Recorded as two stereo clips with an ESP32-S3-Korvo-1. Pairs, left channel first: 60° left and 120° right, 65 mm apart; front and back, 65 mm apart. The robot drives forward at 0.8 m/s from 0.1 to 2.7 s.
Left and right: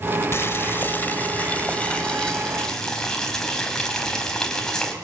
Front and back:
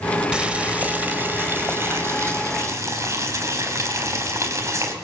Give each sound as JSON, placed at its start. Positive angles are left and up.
{"t": 0.3, "sound": "boiling", "azimuth_deg": 105, "distance_m": 2.5}